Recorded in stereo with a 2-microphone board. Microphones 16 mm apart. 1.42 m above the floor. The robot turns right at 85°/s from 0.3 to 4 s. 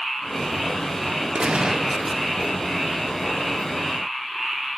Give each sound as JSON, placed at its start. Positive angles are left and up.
{"t": 1.4, "sound": "a gunshot", "azimuth_deg": -75, "distance_m": 0.8}